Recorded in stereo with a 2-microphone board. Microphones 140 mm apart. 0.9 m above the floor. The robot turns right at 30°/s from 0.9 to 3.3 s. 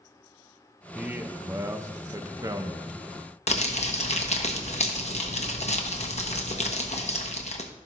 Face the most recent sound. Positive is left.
turn(degrees=50)  # may be behind; listen again after turning